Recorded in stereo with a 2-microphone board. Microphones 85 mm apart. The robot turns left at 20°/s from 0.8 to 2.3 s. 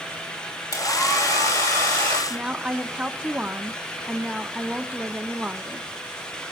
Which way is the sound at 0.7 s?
40° left (ahead or behind).